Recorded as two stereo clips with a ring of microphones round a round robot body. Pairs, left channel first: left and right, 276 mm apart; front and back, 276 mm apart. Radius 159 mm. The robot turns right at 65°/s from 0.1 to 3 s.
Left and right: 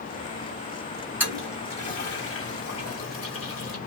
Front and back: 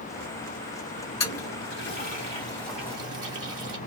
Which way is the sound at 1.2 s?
10° right.